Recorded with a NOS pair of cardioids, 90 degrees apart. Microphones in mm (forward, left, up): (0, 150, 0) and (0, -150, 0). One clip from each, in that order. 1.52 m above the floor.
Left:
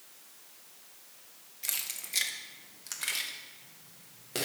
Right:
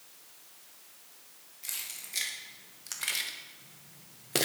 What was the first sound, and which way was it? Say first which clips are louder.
Keys jangling: left 3 dB; 30° left.